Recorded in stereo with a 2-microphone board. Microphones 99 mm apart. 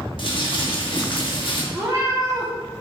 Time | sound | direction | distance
0.2 | crumpling | 55° left (ahead or behind) | 1.0 m
1.7 | a cat meowing | 30° right (ahead or behind) | 1.3 m